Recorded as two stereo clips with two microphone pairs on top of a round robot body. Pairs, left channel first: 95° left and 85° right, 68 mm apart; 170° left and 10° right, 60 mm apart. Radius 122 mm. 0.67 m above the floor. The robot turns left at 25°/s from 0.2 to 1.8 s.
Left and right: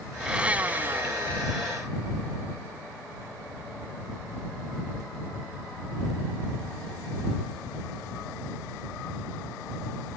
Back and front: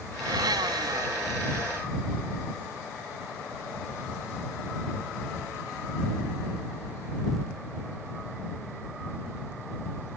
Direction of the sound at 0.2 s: 5° right.